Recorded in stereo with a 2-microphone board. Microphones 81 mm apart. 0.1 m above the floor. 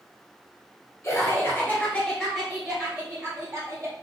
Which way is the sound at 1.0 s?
45° left (ahead or behind).